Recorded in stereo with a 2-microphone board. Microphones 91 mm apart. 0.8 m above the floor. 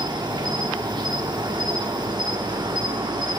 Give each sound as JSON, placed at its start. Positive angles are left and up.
{"t": 0.0, "sound": "an insect", "side_deg": -55, "distance_m": 2.5}